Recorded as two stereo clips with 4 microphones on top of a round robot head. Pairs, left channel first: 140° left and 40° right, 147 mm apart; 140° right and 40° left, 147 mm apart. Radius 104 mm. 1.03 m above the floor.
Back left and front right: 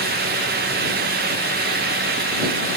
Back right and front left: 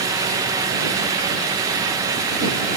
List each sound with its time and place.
Only background noise.